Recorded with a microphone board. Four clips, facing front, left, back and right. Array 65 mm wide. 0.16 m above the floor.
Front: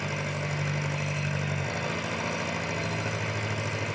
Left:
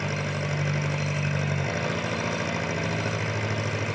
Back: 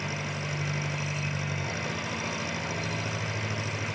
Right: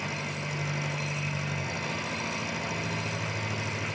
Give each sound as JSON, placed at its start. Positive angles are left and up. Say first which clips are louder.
{"t": 0.0, "sound": "an engine running", "louder": "left 5 dB, front 2 dB", "azimuth_deg": 70, "distance_m": 7.0}